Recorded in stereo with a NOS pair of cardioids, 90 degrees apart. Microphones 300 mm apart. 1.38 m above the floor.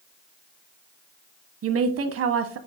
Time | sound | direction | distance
1.6 | a woman speaking | 55° right | 1.4 m